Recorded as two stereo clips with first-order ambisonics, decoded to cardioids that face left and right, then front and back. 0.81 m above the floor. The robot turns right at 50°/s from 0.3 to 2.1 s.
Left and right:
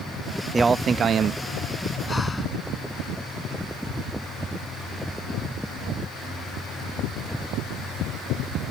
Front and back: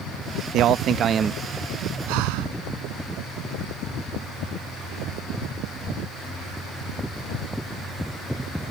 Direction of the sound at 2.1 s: 170° left.